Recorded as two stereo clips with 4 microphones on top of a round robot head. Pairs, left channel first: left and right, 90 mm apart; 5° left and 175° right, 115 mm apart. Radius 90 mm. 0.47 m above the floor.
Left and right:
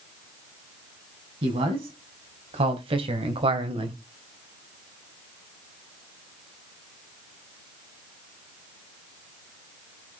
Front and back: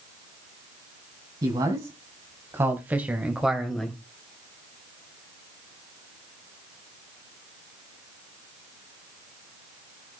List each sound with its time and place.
1.4 s a man speaking: 115° right, 4 m; by 4.0 s 80° right, 2 m